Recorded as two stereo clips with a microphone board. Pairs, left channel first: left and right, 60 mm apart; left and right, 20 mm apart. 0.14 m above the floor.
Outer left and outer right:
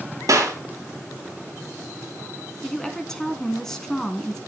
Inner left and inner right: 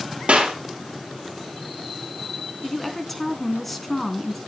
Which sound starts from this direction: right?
A clap, at 0.3 s.